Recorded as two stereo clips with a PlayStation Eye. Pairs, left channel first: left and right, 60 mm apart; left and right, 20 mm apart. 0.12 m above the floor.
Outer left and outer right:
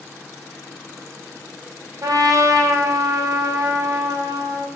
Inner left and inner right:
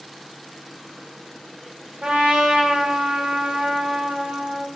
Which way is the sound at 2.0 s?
70° right (ahead or behind).